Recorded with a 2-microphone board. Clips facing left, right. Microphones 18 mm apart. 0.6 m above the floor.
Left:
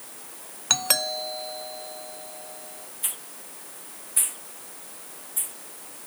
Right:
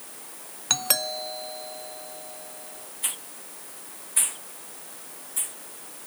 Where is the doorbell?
5° left (ahead or behind).